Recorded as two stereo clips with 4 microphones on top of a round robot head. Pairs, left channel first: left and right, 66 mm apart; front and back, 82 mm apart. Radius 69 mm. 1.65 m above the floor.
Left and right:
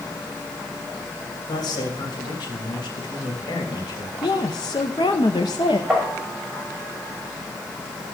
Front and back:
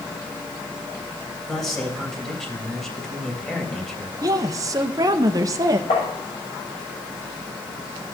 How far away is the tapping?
About 7 m.